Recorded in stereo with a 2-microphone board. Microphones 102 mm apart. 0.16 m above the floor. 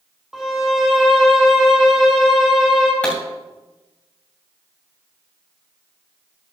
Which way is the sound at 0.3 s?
5° right (ahead or behind).